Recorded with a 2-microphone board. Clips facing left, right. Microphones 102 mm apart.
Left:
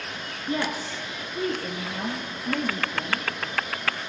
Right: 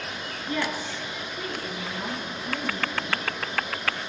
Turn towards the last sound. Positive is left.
turn(degrees=60)  # may be behind; listen again after turning